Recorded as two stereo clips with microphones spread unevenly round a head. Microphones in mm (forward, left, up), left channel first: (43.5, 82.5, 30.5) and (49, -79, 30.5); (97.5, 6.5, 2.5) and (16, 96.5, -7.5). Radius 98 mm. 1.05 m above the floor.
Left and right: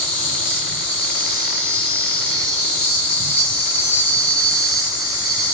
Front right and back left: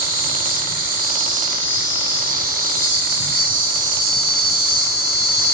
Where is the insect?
155° left, 1.8 m.